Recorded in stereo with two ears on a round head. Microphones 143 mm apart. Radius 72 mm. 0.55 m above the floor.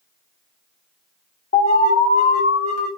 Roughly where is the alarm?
Left.